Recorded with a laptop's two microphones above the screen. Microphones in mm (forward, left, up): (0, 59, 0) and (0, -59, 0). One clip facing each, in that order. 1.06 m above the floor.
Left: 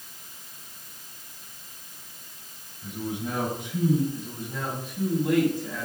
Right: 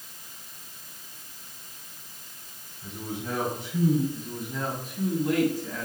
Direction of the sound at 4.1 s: 50° left (ahead or behind).